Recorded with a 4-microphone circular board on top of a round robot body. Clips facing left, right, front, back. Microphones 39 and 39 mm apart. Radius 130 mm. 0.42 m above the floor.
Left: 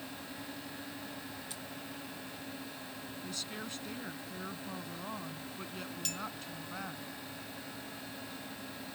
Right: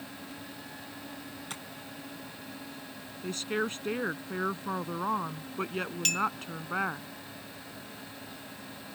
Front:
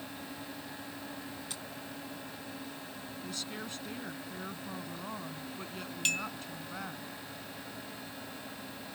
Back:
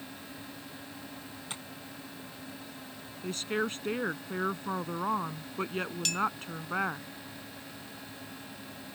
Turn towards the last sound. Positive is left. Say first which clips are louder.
# right 13 dB, back 2 dB
turn(degrees=-60)